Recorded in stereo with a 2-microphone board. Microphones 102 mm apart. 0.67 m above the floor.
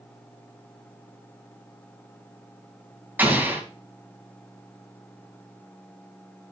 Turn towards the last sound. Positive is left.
turn(degrees=-20)  # may be behind; listen again after turning